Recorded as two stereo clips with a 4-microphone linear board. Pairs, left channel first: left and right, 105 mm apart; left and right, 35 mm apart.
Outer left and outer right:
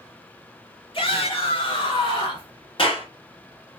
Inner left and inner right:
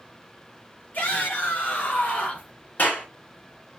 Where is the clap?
55° left (ahead or behind), 2.5 m.